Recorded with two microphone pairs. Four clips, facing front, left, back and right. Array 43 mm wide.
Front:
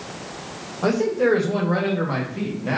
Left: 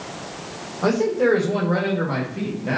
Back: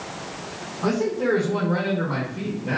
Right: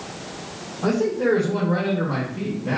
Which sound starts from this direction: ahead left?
A man speaking, at 0.8 s.